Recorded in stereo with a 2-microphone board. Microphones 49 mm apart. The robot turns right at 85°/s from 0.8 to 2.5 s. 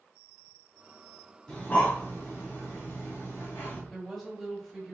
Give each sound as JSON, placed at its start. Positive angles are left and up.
{"t": 1.5, "sound": "breathing", "side_deg": 15, "distance_m": 2.0}
{"t": 3.9, "sound": "a woman speaking", "side_deg": 5, "distance_m": 1.6}